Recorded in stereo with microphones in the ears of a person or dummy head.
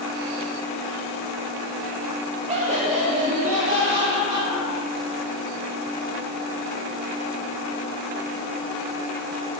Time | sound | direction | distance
2.5 | laughter | 35° right (ahead or behind) | 1.1 m